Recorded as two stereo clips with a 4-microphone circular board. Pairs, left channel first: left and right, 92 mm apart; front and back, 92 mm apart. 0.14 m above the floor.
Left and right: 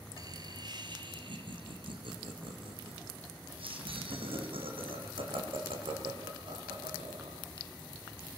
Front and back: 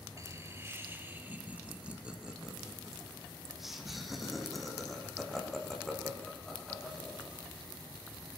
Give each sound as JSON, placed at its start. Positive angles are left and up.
{"t": 0.2, "sound": "laughter", "azimuth_deg": -130, "distance_m": 3.0}